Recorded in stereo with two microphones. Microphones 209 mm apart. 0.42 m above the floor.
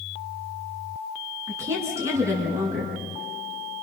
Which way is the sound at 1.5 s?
15° right (ahead or behind).